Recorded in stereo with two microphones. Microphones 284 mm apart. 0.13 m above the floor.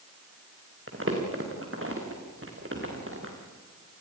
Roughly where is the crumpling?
Right.